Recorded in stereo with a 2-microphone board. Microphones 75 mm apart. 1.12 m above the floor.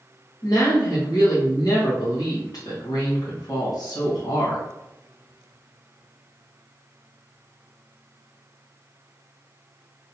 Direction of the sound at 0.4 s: 60° left (ahead or behind).